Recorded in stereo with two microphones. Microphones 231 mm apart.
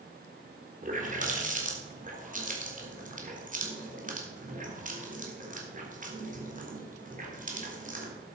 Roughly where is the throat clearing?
I don't hear throat clearing.